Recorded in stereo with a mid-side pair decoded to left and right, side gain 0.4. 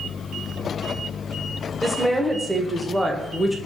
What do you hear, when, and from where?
1.8 s a woman speaking: 5° right, 0.8 m